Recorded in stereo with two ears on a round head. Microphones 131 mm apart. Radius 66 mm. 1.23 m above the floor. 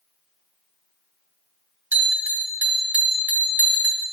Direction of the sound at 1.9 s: 10° right (ahead or behind).